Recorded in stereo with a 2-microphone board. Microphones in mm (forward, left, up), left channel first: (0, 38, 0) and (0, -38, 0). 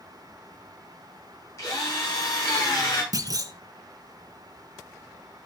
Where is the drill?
40° left (ahead or behind), 7.5 m.